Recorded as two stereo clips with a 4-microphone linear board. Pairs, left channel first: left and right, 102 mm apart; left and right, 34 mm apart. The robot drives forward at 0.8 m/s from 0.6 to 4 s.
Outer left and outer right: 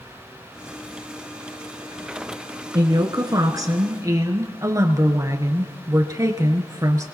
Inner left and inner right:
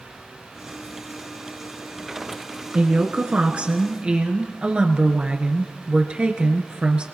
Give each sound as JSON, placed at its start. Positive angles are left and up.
{"t": 2.7, "sound": "a woman speaking", "side_deg": -40, "distance_m": 1.3}